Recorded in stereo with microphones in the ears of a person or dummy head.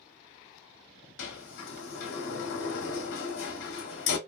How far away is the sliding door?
About 0.9 m.